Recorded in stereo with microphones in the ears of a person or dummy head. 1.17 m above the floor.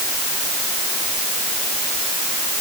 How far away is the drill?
I don't hear a drill.